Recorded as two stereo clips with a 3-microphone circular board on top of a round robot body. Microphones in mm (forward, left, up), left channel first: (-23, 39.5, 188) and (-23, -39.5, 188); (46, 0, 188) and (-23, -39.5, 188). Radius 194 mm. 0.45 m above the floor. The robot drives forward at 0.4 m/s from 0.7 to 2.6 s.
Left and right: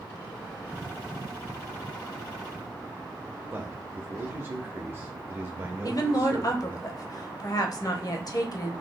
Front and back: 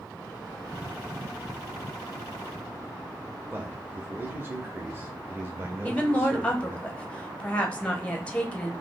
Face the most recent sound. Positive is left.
turn(degrees=100)